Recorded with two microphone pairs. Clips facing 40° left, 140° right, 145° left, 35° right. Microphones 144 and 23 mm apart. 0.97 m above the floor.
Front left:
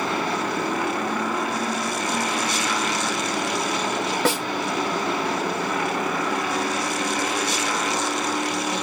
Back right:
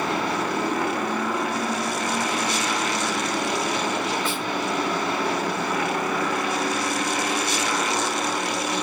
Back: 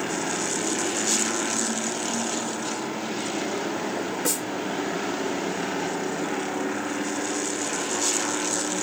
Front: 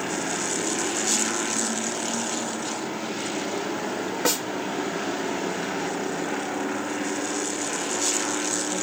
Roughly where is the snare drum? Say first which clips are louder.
Front left 5 dB, front 6 dB; ahead left.